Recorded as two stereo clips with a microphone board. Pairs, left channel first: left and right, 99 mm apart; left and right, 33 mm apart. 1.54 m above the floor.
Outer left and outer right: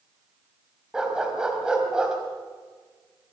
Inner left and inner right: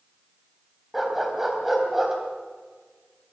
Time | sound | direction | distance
0.9 | a dog barking | 10° right (ahead or behind) | 3.5 m